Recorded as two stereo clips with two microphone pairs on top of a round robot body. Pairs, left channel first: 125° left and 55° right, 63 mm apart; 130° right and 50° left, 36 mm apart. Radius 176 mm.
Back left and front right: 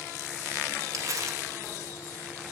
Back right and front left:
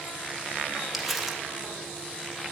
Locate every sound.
0.9 s crumpling: 30° right, 1.4 m